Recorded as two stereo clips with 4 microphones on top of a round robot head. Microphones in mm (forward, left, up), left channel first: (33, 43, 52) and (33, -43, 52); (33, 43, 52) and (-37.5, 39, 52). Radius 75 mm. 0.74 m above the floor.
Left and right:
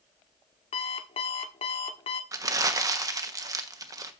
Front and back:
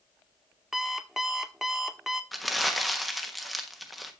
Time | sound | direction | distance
0.7 | an alarm clock | 100° left | 0.9 m
2.3 | crumpling | 85° right | 1.3 m